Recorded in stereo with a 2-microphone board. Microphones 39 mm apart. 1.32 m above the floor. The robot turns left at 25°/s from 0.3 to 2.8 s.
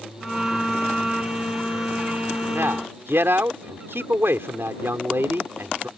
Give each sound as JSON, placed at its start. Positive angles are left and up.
{"t": 2.5, "sound": "a man speaking", "side_deg": -80}